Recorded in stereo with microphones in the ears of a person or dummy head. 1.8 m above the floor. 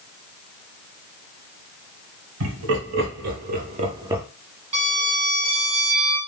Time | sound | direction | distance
2.4 | laughter | 70° right (ahead or behind) | 1.4 m
4.7 | a violin | 35° right (ahead or behind) | 1.1 m